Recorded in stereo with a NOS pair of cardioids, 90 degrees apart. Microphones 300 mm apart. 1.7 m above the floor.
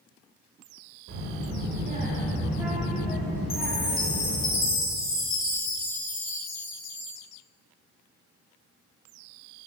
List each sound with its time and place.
1.1 s a child speaking: 55° right, 1.9 m; by 4.5 s 20° left, 3 m
3.5 s a chime: 60° left, 2 m